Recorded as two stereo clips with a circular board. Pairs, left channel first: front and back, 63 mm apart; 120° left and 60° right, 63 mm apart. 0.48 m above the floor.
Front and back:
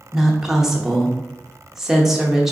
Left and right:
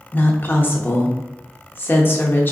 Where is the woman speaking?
100° left, 0.8 m.